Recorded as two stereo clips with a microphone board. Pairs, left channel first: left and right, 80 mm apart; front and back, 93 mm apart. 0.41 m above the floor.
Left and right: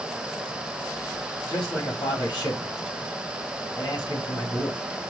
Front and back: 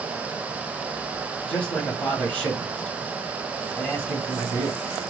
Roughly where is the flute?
No flute in this recording.